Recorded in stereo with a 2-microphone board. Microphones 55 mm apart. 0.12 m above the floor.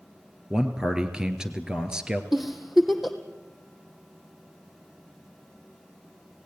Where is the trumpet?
I don't hear a trumpet.